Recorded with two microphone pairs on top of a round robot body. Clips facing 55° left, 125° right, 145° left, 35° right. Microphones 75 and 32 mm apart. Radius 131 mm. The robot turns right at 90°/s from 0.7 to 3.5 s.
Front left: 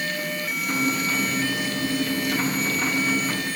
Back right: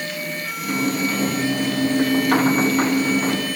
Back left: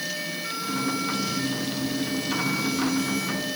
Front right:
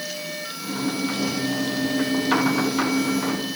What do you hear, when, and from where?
Only background noise.